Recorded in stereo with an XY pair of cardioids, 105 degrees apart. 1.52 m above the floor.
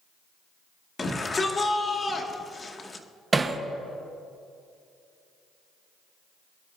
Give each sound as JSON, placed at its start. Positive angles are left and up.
{"t": 1.0, "sound": "a shout", "azimuth_deg": 30, "distance_m": 2.0}
{"t": 3.3, "sound": "hammering", "azimuth_deg": -25, "distance_m": 1.2}